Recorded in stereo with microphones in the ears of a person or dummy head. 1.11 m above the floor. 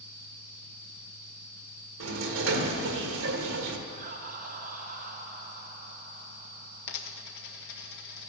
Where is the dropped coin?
60° left (ahead or behind), 0.9 m.